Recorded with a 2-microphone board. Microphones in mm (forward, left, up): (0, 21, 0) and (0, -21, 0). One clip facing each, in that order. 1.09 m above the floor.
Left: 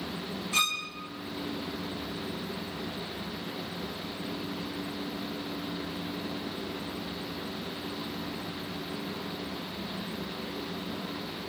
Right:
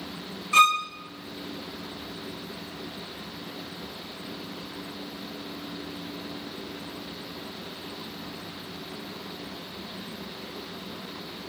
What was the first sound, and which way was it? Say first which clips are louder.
A violin: right 11 dB; 45° right (ahead or behind).